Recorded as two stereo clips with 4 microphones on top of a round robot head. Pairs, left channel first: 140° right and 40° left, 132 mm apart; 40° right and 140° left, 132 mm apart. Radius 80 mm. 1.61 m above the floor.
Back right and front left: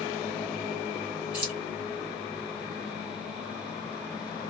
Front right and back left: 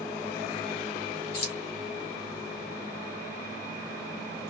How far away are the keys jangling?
About 1.4 m.